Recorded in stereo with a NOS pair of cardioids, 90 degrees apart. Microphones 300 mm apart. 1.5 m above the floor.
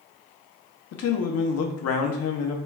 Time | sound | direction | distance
0.9 | a man speaking | 55° left | 0.8 m